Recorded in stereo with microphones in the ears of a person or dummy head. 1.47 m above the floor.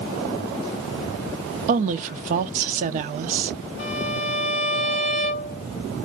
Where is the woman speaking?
45° right (ahead or behind), 0.6 m.